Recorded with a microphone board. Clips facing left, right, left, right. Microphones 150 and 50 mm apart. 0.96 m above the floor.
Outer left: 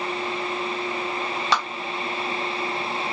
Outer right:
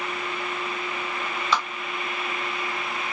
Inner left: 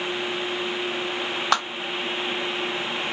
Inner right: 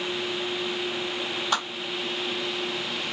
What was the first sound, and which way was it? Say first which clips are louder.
A clap: outer left 1 dB, inner left 5 dB; 90° left.